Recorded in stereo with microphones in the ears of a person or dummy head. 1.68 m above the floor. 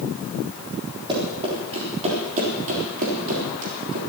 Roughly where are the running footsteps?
Right.